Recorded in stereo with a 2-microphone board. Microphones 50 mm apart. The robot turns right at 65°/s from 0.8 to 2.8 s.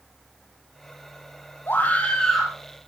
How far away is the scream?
About 4 m.